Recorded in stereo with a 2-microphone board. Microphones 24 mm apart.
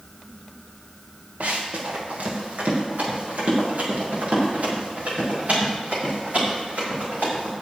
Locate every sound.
1.4 s running footsteps: 75° right (ahead or behind), 2.5 m; by 7.5 s 70° right (ahead or behind), 10 m